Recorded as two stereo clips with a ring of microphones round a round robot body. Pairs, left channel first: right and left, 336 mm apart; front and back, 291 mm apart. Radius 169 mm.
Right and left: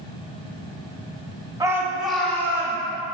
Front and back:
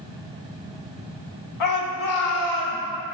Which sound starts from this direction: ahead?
A shout, at 1.6 s.